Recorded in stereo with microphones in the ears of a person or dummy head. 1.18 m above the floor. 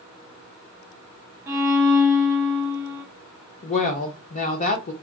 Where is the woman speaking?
35° left (ahead or behind), 0.8 m.